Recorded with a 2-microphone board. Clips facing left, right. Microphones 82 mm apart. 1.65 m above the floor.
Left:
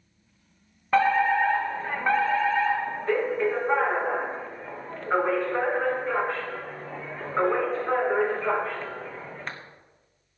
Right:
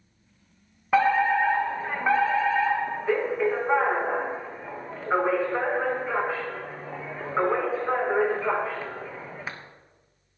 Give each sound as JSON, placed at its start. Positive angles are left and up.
{"t": 0.9, "sound": "a fire alarm", "side_deg": -10, "distance_m": 1.7}